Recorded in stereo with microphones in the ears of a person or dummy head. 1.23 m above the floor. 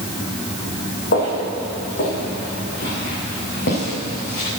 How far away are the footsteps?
About 4.5 m.